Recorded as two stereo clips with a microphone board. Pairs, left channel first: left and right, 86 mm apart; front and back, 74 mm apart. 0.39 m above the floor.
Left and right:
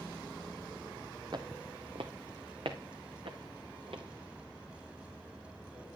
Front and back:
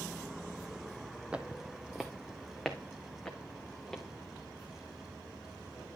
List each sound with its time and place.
1.3 s footsteps: 110° right, 0.6 m; by 4.0 s 80° right, 2 m